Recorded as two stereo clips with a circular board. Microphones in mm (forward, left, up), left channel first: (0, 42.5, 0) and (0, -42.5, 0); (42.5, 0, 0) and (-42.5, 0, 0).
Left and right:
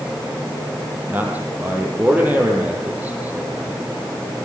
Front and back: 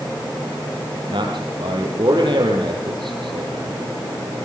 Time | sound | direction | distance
1.1 | a man speaking | 160° right | 6.5 m